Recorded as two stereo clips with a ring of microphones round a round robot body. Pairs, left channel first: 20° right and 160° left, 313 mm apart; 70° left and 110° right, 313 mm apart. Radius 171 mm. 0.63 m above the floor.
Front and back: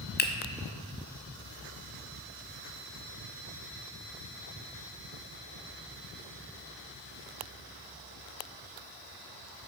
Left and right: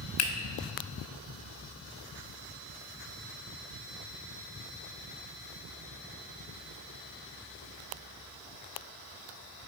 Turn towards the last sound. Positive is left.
turn(degrees=35)